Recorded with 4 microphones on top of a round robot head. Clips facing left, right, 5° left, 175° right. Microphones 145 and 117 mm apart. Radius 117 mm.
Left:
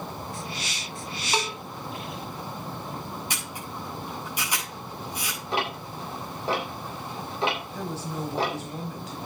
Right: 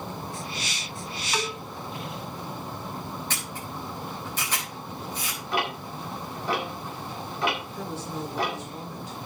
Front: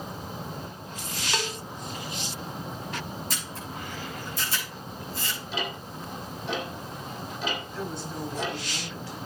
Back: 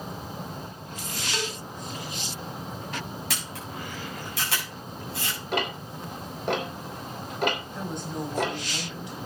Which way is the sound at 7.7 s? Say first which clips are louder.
Left 1 dB, back 1 dB; 115° left.